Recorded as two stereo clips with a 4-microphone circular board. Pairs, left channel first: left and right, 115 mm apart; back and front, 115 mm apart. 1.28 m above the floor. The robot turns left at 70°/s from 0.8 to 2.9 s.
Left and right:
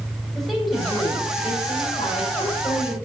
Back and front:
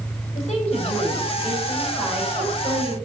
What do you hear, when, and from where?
0.3 s a woman speaking: straight behind, 5.5 m; by 3.0 s 30° left, 5.5 m